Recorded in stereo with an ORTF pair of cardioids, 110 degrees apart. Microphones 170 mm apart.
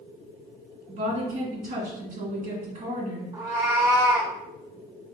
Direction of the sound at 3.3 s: 60° right.